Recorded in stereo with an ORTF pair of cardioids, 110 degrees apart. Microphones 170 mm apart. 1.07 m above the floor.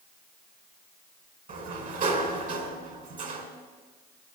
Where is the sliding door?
50° right, 3 m.